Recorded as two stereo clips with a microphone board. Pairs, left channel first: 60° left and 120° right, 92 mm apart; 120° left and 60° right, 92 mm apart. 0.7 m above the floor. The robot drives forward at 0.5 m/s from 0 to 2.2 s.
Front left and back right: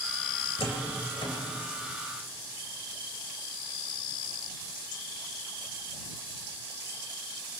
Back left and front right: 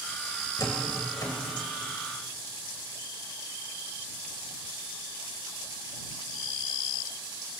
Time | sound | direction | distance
0.6 | a door slam | 70° left | 2.5 m